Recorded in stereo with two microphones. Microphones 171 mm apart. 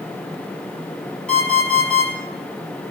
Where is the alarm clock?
5° left (ahead or behind), 3 m.